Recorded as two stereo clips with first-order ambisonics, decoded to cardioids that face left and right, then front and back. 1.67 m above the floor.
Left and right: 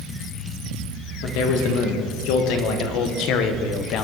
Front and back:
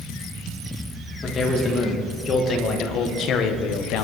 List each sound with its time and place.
1.2 s a man speaking: 70° left, 2.5 m; by 4.0 s 40° left, 1.2 m